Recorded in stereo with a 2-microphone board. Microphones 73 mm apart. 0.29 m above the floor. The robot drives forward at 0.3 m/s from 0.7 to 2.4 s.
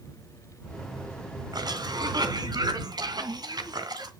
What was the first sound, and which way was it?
A cough, 65° right (ahead or behind).